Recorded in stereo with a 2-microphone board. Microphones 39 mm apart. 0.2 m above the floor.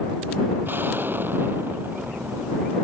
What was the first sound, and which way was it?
An explosion, 55° right (ahead or behind).